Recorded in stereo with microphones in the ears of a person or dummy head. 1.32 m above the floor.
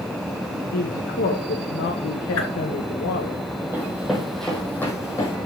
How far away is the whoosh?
About 2.5 m.